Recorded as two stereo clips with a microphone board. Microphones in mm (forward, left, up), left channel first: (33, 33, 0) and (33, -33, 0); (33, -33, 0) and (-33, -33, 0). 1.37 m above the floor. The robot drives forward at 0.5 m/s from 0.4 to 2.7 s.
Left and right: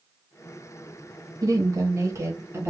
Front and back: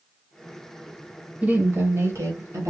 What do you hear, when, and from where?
1.4 s a woman speaking: 110° right, 0.7 m; by 2.7 s 145° right, 1.1 m